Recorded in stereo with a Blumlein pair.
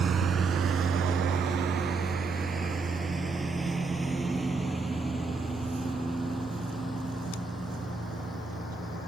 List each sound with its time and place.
0.0 s a lawn mower: 20° right; by 9.1 s 5° right